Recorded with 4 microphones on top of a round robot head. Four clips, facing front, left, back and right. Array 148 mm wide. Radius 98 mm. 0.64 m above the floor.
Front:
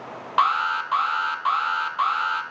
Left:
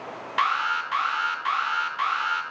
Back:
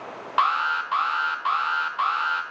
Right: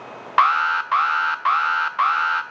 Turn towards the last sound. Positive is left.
turn(degrees=-75)